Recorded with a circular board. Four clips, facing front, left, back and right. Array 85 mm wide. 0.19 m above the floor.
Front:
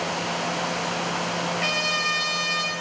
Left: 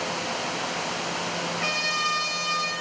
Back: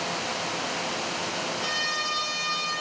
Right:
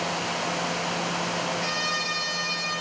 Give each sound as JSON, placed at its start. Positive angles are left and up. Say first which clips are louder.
{"t": 1.6, "sound": "a trumpet", "louder": "left 1 dB, front 4 dB", "azimuth_deg": 20, "distance_m": 1.2}